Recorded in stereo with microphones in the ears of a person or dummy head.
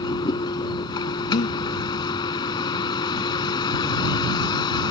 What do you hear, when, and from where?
0.0 s a vehicle: 25° left (ahead or behind)
1.3 s breathing: 45° left (ahead or behind)